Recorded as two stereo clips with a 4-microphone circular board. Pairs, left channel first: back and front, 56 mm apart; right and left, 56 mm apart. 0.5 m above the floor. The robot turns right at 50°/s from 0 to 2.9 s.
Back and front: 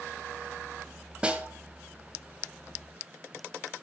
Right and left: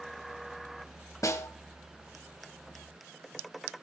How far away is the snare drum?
About 1.4 m.